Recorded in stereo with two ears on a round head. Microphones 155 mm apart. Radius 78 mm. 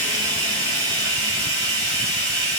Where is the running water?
30° right (ahead or behind), 1.7 m.